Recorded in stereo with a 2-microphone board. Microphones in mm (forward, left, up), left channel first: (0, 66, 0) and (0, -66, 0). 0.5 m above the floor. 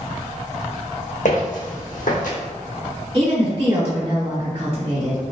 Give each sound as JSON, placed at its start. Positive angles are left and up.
{"t": 1.2, "sound": "footsteps", "side_deg": 65, "distance_m": 1.6}
{"t": 3.1, "sound": "a woman speaking", "side_deg": -45, "distance_m": 1.8}